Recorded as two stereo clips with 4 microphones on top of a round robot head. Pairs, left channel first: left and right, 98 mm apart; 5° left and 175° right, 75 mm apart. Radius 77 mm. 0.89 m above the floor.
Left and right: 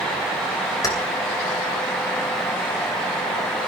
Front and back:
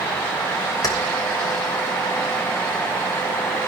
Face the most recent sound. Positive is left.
turn(degrees=40)